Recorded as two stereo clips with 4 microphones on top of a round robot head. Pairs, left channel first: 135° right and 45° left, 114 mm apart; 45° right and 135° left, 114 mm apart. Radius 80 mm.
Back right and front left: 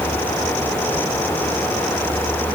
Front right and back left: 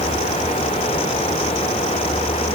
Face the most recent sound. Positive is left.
No sound to turn to.